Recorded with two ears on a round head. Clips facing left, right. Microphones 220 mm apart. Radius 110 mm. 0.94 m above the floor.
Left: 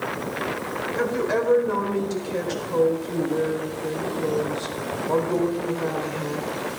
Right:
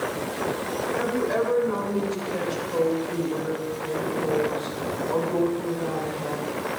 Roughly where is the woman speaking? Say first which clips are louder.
Left 2 dB; left.